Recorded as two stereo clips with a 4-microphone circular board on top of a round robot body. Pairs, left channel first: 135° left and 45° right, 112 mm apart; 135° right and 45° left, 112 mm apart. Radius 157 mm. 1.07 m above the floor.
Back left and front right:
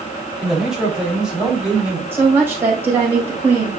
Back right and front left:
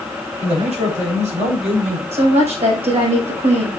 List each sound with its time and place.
0.4 s a man speaking: 40° left, 4 m; by 2.0 s 35° left, 5.5 m
2.1 s a woman speaking: 25° left, 5.5 m